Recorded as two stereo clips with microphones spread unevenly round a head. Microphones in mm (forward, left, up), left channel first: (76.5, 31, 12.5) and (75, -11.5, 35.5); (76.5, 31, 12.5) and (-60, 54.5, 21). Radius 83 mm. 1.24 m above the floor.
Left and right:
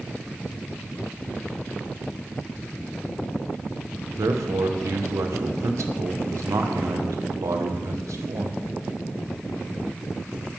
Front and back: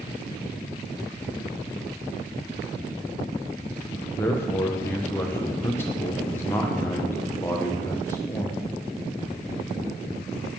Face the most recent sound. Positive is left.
turn(degrees=-85)